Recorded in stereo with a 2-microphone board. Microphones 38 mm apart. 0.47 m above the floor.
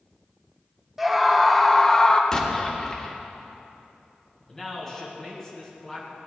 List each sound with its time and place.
1.0 s a scream: 10° right (ahead or behind), 1.3 m; by 2.2 s 20° left (ahead or behind), 1.1 m
2.3 s an explosion: 15° left (ahead or behind), 1.4 m
4.5 s a man speaking: 5° left (ahead or behind), 4.5 m